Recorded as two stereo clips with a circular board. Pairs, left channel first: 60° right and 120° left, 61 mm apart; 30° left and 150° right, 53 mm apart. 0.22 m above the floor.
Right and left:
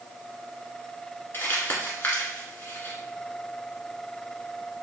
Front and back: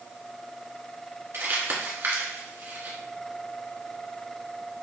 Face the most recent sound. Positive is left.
turn(degrees=-110)